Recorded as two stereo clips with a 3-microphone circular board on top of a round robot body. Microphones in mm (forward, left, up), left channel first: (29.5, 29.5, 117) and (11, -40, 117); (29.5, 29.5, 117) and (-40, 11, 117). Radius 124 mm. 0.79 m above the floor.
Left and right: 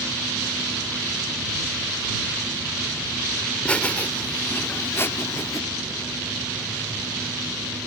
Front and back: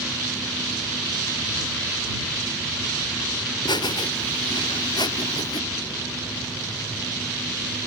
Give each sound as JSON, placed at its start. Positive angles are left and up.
{"t": 3.6, "sound": "laughter", "azimuth_deg": 0}